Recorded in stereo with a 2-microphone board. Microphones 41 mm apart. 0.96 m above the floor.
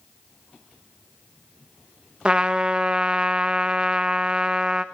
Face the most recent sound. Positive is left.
turn(degrees=-25)  # may be behind; listen again after turning